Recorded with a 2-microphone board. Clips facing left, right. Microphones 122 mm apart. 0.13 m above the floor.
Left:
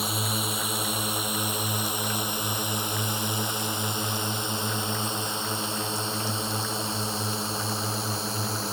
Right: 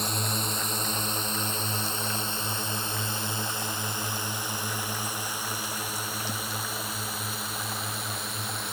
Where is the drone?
5° left (ahead or behind); by 8.7 s 30° left (ahead or behind).